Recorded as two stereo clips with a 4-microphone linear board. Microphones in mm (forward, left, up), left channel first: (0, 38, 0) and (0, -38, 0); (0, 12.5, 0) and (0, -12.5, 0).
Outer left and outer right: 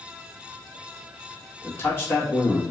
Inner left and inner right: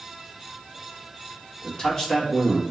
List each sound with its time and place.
1.6 s a man speaking: 30° left (ahead or behind), 1.7 m